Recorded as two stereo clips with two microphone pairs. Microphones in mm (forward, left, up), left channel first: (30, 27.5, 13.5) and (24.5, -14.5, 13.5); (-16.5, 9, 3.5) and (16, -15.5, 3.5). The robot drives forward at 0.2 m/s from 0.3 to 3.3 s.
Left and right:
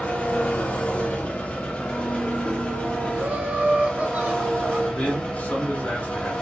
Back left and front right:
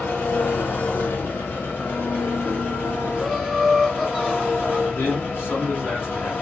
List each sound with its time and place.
0.0 s an engine running: 130° left, 1.3 m; by 6.4 s 145° left, 1.7 m
3.1 s laughter: 120° right, 0.9 m; by 4.8 s 125° right, 0.9 m
4.9 s a man speaking: 130° left, 2 m